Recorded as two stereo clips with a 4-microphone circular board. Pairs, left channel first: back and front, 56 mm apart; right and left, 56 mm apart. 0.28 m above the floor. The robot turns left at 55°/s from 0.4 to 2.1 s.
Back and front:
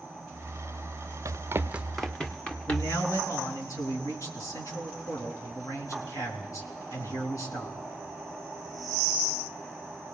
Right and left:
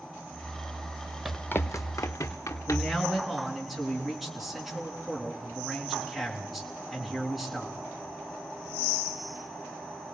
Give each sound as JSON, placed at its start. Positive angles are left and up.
{"t": 1.2, "sound": "running footsteps", "azimuth_deg": 5, "distance_m": 0.6}
{"t": 2.7, "sound": "a man speaking", "azimuth_deg": 180, "distance_m": 4.0}